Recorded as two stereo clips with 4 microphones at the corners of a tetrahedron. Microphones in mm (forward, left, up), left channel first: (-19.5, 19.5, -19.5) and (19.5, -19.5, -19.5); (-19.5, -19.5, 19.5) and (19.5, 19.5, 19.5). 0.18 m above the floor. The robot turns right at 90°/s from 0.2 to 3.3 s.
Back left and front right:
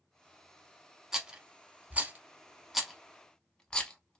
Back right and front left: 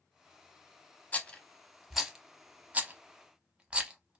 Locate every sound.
1.1 s a rattle: 115° right, 0.6 m; by 4.2 s 85° left, 0.6 m